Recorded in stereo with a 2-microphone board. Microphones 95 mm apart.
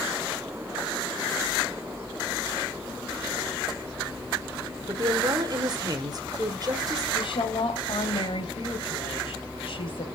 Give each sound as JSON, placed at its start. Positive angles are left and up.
{"t": 4.9, "sound": "a woman speaking", "side_deg": -45, "distance_m": 1.6}
{"t": 7.1, "sound": "a woman speaking", "side_deg": 65, "distance_m": 2.0}